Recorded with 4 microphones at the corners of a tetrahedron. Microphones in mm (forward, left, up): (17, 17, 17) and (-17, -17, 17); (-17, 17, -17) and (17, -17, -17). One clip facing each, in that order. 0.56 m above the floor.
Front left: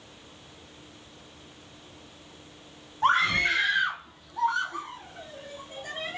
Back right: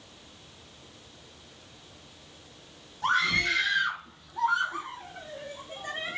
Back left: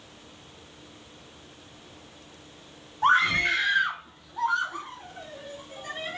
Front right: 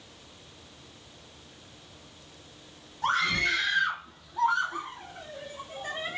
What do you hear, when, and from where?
3.0 s a scream: 90° left, 1.0 m; by 6.2 s 100° right, 1.2 m